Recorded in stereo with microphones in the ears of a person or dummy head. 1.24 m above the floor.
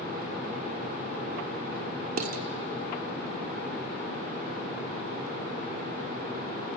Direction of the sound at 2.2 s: 50° right (ahead or behind).